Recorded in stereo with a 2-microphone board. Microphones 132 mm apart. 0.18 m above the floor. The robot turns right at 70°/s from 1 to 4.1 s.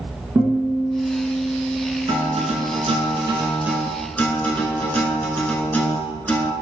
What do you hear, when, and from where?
0.3 s a guitar: 140° right, 1.0 m; by 2.6 s 30° right, 1.0 m
2.1 s a guitar: 125° right, 0.7 m; by 6.5 s 15° left, 0.7 m